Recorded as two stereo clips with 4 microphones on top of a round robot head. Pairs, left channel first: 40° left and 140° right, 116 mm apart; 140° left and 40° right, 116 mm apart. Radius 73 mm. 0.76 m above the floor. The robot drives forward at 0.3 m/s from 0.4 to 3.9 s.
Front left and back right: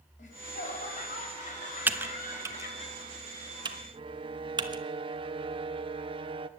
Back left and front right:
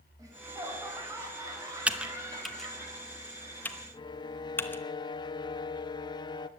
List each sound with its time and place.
0.2 s laughter: 25° left, 5 m
1.9 s typing on a keyboard: 100° right, 0.9 m; by 4.8 s 155° right, 1.1 m
3.9 s a violin: 175° right, 0.7 m